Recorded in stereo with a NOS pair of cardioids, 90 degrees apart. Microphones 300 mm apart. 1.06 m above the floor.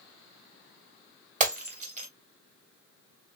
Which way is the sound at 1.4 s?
25° right.